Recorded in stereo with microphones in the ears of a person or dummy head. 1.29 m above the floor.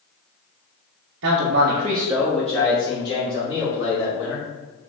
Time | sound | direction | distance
1.2 | a man speaking | 80° right | 0.9 m